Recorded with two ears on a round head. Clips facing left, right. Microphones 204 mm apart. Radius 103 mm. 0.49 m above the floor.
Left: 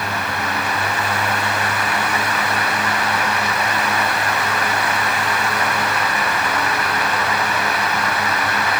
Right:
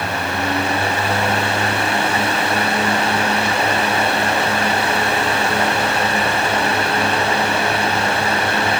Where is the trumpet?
No trumpet in this recording.